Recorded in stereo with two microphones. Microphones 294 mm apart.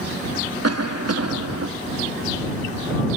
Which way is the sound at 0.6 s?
55° right (ahead or behind).